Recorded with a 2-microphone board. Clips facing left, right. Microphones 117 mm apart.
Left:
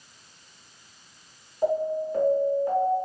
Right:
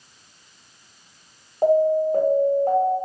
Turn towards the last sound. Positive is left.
turn(degrees=-50)  # may be behind; listen again after turning